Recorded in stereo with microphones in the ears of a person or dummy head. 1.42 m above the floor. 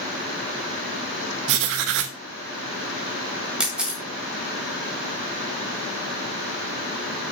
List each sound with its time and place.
1.5 s writing: 65° right (ahead or behind), 1.2 m
3.6 s a camera shutter: 5° right (ahead or behind), 1.6 m